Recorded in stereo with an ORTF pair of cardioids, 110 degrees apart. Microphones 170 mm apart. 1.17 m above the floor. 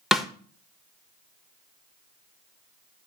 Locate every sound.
0.1 s a snare drum: straight ahead, 1.3 m